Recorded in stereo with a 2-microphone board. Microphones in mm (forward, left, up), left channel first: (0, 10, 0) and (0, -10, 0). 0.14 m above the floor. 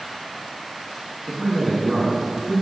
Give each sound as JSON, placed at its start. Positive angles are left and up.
{"t": 1.3, "sound": "a man speaking", "side_deg": 5, "distance_m": 1.5}